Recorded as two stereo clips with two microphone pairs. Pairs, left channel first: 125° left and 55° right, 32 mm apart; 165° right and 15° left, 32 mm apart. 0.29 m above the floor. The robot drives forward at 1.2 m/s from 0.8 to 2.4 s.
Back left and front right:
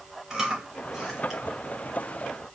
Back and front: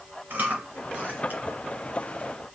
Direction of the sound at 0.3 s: 15° left.